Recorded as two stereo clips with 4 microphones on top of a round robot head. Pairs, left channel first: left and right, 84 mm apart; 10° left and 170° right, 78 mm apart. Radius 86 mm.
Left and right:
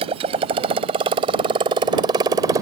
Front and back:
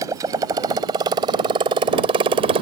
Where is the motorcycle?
110° right; by 2.6 s 150° right.